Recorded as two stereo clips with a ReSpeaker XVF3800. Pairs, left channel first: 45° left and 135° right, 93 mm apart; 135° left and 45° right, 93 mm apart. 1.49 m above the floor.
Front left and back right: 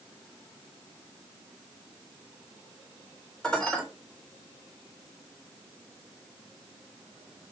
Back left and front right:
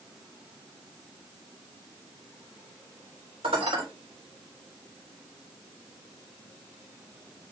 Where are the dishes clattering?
35° right, 4 m.